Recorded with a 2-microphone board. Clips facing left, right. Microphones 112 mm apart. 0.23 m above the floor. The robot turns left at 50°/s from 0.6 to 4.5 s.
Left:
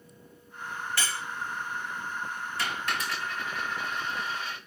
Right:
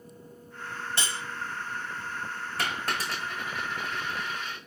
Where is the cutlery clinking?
25° right (ahead or behind), 0.5 m; by 1.2 s 20° right (ahead or behind), 0.5 m.